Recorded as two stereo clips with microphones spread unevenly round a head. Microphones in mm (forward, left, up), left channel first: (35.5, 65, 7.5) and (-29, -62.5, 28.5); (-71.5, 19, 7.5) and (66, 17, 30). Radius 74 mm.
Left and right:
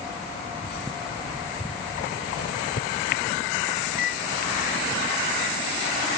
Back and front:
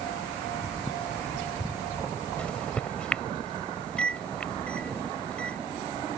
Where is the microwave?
95° left.